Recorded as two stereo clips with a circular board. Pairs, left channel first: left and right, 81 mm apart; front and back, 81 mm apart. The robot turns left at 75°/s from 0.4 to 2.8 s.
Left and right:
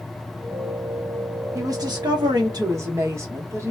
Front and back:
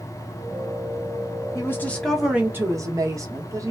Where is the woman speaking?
45° right, 1.1 m; by 3.7 s 140° right, 1.1 m.